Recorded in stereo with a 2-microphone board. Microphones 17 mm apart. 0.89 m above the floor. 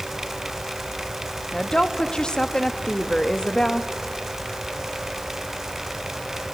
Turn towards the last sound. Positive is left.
turn(degrees=45)  # may be behind; listen again after turning